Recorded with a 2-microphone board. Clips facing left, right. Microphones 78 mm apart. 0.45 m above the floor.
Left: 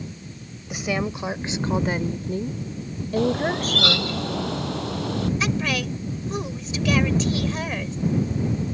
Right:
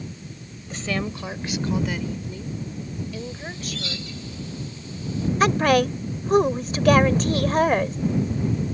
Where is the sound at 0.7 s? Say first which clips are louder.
Left 2 dB; 10° left (ahead or behind); by 4.2 s 40° left (ahead or behind).